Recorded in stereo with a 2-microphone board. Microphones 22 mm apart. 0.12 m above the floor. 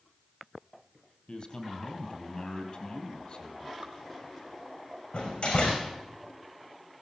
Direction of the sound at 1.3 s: 55° left (ahead or behind).